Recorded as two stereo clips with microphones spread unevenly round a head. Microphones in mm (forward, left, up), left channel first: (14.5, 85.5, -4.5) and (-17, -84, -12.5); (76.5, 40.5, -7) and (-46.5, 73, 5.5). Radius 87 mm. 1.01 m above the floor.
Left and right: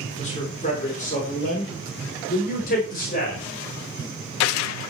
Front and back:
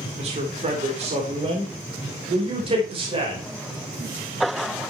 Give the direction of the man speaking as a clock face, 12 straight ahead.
8 o'clock.